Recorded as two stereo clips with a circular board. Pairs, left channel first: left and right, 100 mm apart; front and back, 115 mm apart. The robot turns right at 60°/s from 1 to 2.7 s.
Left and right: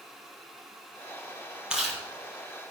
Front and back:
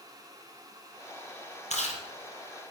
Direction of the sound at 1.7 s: 10° right.